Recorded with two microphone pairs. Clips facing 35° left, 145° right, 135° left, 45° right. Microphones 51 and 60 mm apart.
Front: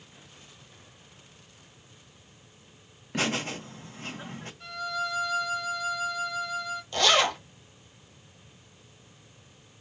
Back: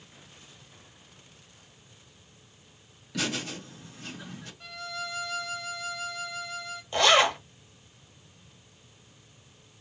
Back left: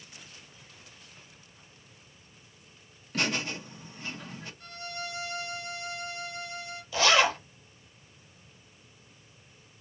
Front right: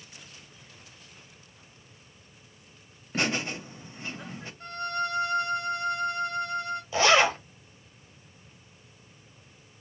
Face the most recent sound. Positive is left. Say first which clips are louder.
# back 2 dB, front right 2 dB
turn(degrees=-95)